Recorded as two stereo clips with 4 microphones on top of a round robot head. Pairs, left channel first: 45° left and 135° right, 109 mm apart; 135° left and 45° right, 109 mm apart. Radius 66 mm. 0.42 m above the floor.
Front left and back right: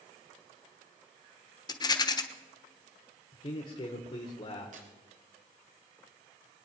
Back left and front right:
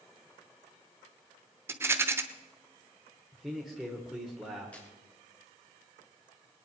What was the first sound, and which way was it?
A rattle, 15° left.